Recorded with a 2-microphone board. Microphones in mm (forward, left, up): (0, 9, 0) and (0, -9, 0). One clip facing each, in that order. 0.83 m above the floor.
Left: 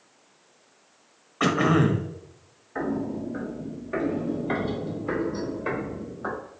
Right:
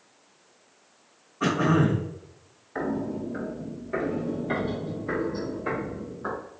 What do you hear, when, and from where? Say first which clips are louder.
1.4 s throat clearing: left 2 dB; 65° left (ahead or behind), 0.8 m
2.8 s footsteps: left 1 dB; 10° right (ahead or behind), 0.9 m; by 6.4 s 25° left (ahead or behind), 2.5 m